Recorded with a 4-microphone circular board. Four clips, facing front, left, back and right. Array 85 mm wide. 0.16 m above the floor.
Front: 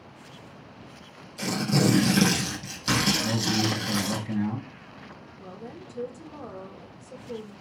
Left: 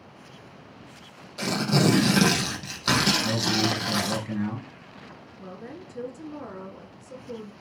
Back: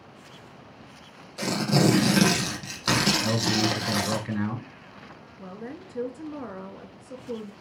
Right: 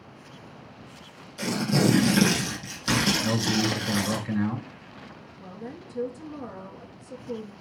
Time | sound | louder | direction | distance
1.4 | tearing paper | left 1 dB, back 2 dB | 140° left | 3.5 m
3.2 | a man speaking | even, back 1 dB | 155° right | 2 m
5.4 | a woman speaking | even, back 3 dB | 170° left | 1.9 m